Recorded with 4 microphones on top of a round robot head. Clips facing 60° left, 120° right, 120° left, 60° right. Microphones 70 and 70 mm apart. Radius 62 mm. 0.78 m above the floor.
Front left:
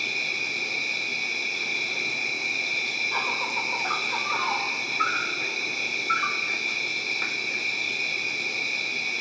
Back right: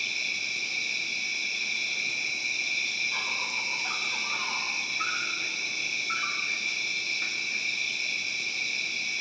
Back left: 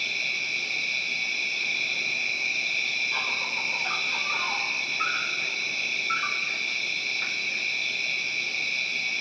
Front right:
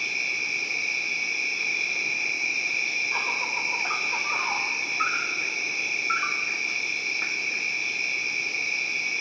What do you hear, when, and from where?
0.0 s an insect: 15° left, 3 m